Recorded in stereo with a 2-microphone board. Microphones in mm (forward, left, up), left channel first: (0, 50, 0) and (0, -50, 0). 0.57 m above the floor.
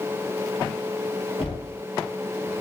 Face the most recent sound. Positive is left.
turn(degrees=70)  # may be behind; listen again after turning